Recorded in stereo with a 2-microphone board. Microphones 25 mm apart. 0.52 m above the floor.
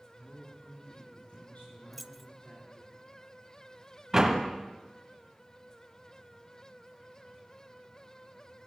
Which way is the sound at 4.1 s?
20° right (ahead or behind).